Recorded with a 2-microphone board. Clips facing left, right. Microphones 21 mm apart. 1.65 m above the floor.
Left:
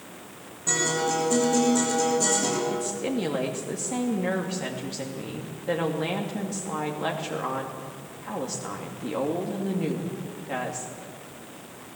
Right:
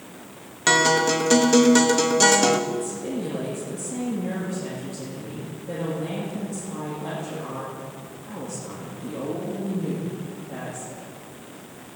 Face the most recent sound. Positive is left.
turn(degrees=70)  # may be behind; listen again after turning